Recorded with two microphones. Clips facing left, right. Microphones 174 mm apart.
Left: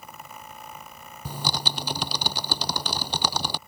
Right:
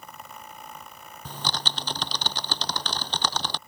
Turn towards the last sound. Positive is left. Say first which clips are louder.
# left 2 dB
turn(degrees=10)  # may be behind; listen again after turning